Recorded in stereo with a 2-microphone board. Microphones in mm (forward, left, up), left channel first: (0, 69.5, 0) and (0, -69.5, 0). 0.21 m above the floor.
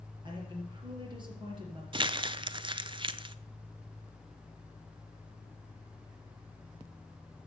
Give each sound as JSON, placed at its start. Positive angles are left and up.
{"t": 0.2, "sound": "a woman speaking", "side_deg": -35, "distance_m": 4.5}
{"t": 1.9, "sound": "crumpling", "side_deg": -40, "distance_m": 0.5}